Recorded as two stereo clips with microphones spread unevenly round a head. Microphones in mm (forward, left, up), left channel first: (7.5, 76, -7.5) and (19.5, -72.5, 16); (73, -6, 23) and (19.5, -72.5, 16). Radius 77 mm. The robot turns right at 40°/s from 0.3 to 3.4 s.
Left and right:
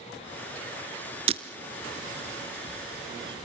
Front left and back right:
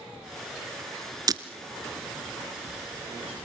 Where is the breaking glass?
100° right, 1.4 m; by 1.4 s 95° right, 1.4 m.